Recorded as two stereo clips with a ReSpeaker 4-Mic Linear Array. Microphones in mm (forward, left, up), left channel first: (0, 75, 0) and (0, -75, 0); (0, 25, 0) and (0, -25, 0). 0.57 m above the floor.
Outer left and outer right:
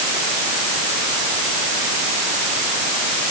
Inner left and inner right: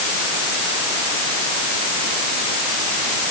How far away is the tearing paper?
I don't hear tearing paper.